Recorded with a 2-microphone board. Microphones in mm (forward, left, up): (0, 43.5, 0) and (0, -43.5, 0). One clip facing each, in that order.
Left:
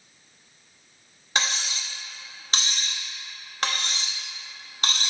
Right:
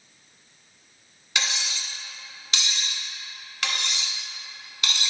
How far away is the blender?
No blender in this recording.